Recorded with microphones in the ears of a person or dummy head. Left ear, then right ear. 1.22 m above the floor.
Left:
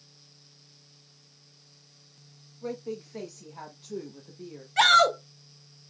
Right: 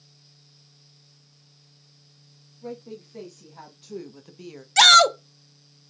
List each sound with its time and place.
2.6 s a woman speaking: 25° left (ahead or behind), 1.5 m; by 4.7 s 70° right (ahead or behind), 0.8 m
4.8 s a shout: 75° right (ahead or behind), 0.8 m